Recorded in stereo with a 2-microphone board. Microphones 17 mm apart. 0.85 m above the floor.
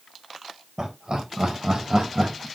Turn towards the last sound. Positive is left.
turn(degrees=-60)  # may be behind; listen again after turning